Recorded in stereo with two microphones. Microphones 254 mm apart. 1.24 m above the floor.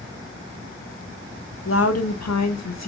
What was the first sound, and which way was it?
A woman speaking, 50° left (ahead or behind).